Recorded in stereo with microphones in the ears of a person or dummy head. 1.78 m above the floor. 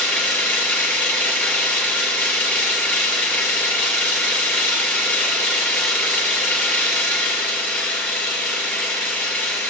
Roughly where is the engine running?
Centre.